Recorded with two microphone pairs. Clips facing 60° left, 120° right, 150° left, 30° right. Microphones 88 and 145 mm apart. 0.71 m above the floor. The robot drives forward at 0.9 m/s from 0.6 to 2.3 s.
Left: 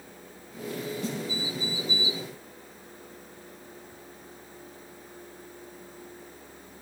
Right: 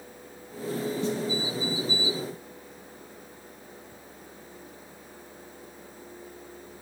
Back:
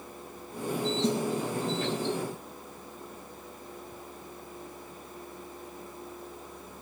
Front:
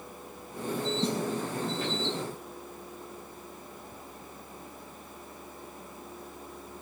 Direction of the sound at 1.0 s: 60° right.